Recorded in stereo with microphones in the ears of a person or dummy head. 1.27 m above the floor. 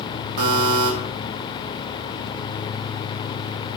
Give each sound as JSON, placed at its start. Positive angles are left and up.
{"t": 0.4, "sound": "a buzzer", "side_deg": -50, "distance_m": 0.8}